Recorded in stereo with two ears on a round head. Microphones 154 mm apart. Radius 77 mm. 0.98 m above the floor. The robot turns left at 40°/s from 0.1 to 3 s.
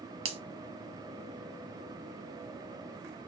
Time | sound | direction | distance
0.2 | a finger snap | 35° right (ahead or behind) | 0.8 m